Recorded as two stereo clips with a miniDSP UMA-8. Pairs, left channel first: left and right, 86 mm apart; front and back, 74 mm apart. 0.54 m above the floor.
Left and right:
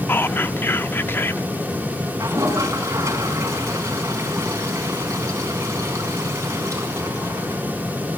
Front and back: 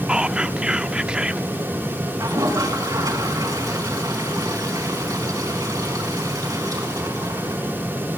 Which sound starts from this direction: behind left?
Whispering, at 0.1 s.